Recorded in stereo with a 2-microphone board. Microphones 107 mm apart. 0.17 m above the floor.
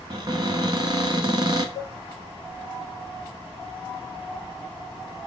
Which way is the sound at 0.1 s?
45° right (ahead or behind).